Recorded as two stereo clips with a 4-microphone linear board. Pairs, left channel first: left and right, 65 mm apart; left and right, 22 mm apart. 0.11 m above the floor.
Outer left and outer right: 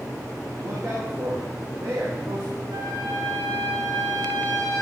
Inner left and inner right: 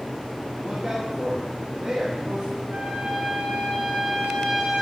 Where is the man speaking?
50° right (ahead or behind), 4.5 m.